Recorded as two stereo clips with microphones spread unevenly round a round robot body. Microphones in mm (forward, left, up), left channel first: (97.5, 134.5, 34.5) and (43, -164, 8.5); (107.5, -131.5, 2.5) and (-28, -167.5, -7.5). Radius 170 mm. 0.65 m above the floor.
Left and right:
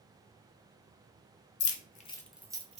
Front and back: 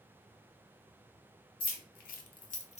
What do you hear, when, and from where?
1.6 s keys jangling: 35° left, 0.5 m; by 2.8 s 30° right, 0.8 m